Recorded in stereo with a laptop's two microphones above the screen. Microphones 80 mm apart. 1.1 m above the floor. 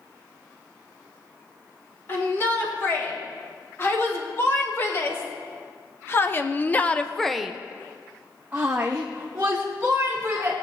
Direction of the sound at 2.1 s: 35° left (ahead or behind).